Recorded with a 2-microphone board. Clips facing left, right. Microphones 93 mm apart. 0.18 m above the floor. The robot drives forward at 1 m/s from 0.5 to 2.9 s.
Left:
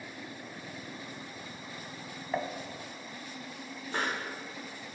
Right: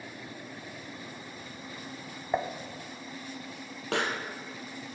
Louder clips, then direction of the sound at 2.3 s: Right 3 dB; 20° right (ahead or behind).